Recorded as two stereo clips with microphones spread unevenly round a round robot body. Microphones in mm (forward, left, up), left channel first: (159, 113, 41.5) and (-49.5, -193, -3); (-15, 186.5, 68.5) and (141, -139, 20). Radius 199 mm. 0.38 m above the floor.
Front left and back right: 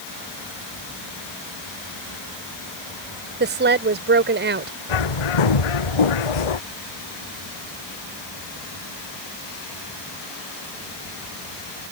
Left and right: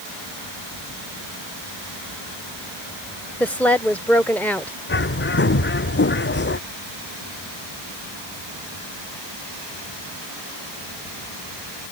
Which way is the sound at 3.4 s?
150° right.